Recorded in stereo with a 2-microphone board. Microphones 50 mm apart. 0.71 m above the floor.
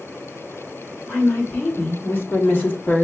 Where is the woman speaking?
40° left (ahead or behind), 2 m; by 3.0 s 30° left (ahead or behind), 0.9 m.